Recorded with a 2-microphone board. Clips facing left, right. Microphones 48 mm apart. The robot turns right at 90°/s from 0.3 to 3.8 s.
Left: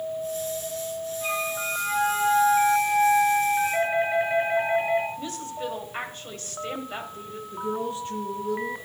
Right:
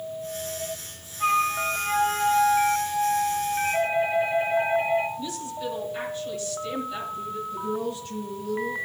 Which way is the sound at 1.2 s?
105° right.